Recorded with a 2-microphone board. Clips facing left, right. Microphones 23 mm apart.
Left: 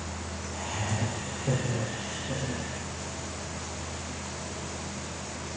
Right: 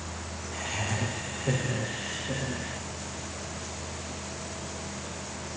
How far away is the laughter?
About 3.5 m.